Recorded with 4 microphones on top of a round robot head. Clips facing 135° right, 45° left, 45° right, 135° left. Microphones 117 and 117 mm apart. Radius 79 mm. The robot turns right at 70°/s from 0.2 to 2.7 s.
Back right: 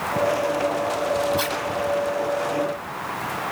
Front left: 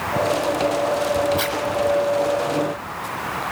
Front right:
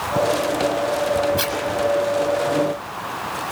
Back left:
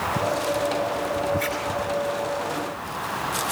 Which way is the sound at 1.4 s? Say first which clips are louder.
Front left 2 dB, front right 3 dB; 35° right.